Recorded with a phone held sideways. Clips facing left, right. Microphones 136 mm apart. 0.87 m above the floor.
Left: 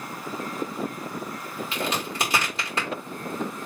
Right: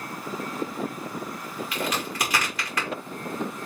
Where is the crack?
25° left (ahead or behind), 2 m.